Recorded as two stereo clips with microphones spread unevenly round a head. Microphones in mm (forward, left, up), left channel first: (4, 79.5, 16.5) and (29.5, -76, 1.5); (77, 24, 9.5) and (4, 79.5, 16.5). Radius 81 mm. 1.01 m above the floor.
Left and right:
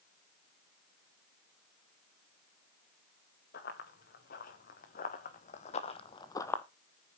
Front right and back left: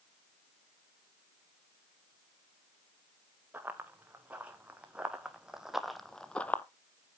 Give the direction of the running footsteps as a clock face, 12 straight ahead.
10 o'clock.